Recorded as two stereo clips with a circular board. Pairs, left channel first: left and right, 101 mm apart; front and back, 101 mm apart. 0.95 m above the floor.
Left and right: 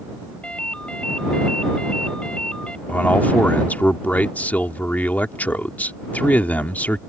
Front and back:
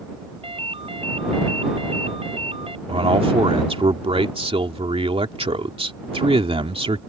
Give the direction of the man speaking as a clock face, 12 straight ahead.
7 o'clock.